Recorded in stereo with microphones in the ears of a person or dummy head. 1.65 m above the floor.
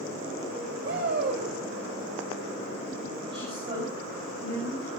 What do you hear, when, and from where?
0.8 s a shout: 65° right (ahead or behind), 6 m
3.3 s a woman speaking: 35° right (ahead or behind), 6.5 m